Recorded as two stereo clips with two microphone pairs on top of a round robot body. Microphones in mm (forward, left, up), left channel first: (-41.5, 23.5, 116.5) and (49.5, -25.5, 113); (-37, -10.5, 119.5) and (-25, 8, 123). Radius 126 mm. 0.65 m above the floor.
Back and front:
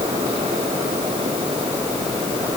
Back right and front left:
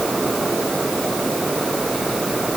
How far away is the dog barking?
I don't hear a dog barking.